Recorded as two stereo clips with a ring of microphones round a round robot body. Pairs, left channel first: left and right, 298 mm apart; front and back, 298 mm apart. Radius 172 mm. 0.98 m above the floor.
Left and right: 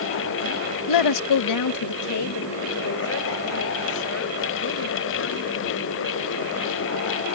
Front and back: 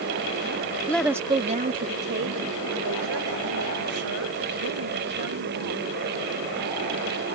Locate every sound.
0.9 s a woman speaking: 85° left; by 5.9 s 140° left